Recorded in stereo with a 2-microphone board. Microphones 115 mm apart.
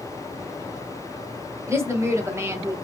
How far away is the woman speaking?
About 1.2 m.